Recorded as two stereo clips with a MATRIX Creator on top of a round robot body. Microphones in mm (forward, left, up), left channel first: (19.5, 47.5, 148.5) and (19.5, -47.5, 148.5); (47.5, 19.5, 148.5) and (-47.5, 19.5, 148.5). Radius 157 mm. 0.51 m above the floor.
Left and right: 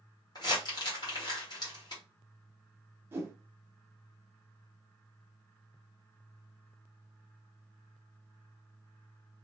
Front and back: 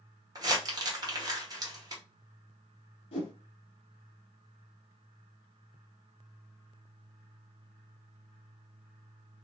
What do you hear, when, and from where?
0.3 s crumpling: 130° left, 1.2 m
3.1 s a whoosh: 25° right, 0.6 m